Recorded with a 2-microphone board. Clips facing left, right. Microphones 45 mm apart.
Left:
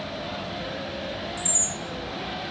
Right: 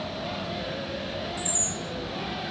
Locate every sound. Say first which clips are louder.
0.0 s running water: even; 55° left (ahead or behind), 1.0 m
1.4 s a chime: even; 10° right (ahead or behind), 1.3 m